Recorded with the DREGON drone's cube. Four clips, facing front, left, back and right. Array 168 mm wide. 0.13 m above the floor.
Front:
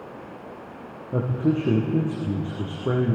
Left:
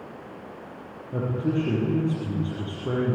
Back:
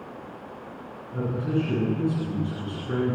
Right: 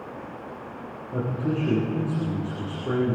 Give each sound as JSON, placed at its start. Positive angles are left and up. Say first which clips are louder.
{"t": 1.1, "sound": "a man speaking", "louder": "left 1 dB, front 4 dB", "azimuth_deg": 5, "distance_m": 5.0}